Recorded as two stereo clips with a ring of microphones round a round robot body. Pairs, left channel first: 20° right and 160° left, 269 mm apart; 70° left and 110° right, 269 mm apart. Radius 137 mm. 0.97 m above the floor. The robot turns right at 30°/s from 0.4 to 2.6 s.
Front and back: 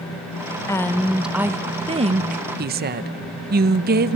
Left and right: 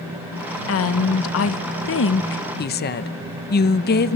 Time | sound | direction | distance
0.7 | a woman speaking | 55° left | 0.8 m